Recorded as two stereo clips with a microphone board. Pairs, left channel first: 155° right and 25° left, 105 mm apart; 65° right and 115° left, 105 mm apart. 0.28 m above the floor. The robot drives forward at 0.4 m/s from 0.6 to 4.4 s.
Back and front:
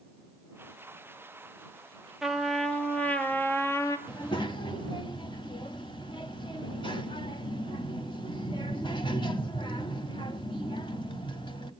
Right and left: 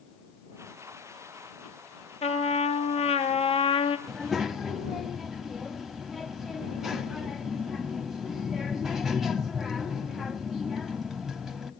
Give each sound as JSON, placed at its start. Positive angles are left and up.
{"t": 2.2, "sound": "a trumpet", "azimuth_deg": -65, "distance_m": 1.2}
{"t": 4.1, "sound": "a child speaking", "azimuth_deg": -160, "distance_m": 0.9}